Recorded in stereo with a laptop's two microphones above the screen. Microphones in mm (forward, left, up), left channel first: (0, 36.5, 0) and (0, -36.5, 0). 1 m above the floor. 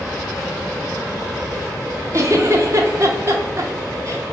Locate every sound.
2.1 s a giggle: 35° right (ahead or behind), 0.7 m